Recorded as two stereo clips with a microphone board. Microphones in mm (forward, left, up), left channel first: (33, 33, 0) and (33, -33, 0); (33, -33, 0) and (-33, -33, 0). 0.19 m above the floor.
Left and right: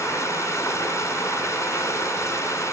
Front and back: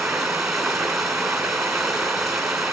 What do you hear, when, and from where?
0.0 s running water: 95° left, 1.7 m